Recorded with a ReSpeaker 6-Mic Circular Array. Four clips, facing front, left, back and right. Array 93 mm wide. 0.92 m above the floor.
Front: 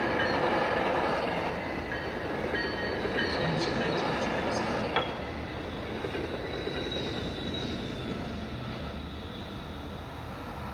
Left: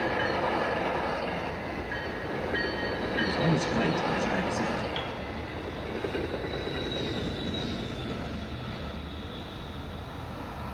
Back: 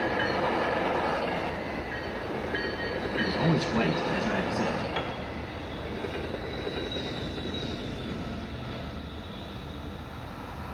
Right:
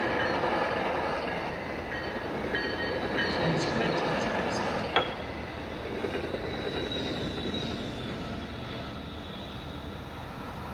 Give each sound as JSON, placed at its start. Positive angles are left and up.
{"t": 3.2, "sound": "a man speaking", "azimuth_deg": 160, "distance_m": 7.5}
{"t": 5.0, "sound": "a piano", "azimuth_deg": -70, "distance_m": 1.3}